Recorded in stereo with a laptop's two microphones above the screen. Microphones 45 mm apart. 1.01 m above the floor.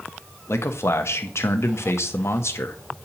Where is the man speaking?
70° left (ahead or behind), 0.9 m.